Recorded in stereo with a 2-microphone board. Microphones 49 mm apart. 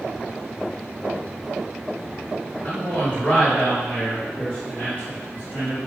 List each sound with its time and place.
2.6 s a man speaking: 35° left (ahead or behind), 1.5 m; by 5.8 s 45° left (ahead or behind), 1.8 m